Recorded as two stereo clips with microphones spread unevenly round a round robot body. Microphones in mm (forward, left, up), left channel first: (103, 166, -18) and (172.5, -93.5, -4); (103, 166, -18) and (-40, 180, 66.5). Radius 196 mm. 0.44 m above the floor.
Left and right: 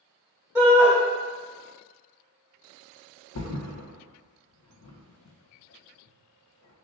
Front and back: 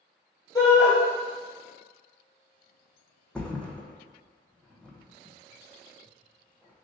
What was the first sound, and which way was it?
A shout, 5° left.